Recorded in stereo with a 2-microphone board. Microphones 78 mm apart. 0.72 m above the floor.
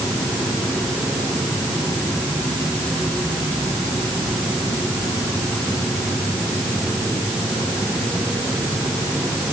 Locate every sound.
Only background noise.